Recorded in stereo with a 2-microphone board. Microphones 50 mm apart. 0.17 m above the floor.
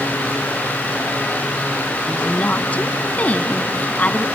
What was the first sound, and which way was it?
A woman speaking, 30° left (ahead or behind).